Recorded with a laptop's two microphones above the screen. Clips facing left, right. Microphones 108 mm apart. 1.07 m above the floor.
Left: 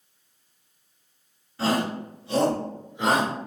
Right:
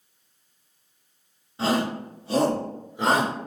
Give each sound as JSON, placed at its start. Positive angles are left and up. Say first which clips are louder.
{"t": 1.6, "sound": "a shout", "louder": "right 1 dB", "side_deg": -20, "distance_m": 1.2}